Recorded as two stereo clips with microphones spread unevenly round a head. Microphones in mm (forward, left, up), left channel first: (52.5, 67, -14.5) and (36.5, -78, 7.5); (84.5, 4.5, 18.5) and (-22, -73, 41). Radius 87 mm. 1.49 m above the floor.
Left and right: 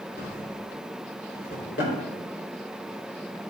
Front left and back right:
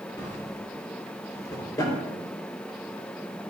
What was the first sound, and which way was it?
A drawer, 115° left.